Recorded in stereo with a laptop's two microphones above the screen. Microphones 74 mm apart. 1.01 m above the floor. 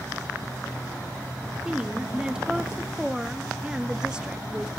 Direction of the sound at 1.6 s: 10° right (ahead or behind).